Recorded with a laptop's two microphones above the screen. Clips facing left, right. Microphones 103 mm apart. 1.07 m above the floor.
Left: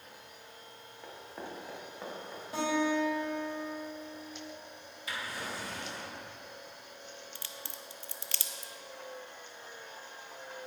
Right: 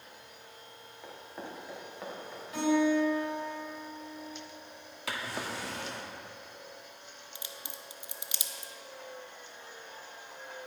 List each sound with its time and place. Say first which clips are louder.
1.0 s running footsteps: even; centre (ahead or behind), 4 m; by 2.4 s 5° left (ahead or behind), 4.5 m
2.5 s a guitar: right 4 dB; 35° left (ahead or behind), 4 m
5.1 s a drawer: right 3 dB; 80° right, 1.2 m
7.3 s a crack: even; 15° right (ahead or behind), 0.7 m